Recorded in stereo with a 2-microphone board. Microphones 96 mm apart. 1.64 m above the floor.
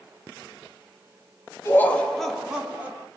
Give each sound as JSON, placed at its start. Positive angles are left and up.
{"t": 1.6, "sound": "laughter", "side_deg": 25, "distance_m": 0.6}